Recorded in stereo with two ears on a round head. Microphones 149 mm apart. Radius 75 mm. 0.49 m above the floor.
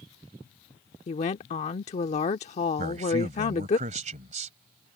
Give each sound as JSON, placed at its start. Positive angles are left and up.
{"t": 1.1, "sound": "a woman speaking", "side_deg": 40}
{"t": 2.8, "sound": "a man speaking", "side_deg": -40}